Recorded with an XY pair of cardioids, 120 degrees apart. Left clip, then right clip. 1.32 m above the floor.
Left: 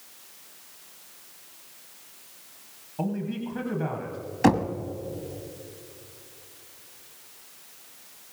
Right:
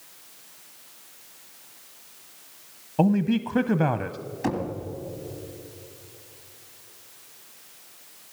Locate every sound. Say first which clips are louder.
3.0 s a man speaking: right 8 dB; 60° right, 0.6 m
4.4 s knocking: left 7 dB; 65° left, 1.5 m